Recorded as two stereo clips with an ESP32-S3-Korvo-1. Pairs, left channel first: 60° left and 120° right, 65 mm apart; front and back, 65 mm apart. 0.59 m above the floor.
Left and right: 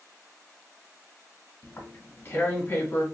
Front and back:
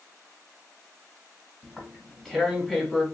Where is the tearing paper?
75° left, 1.4 m.